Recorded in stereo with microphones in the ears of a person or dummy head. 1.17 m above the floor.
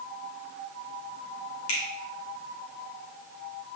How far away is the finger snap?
About 2 m.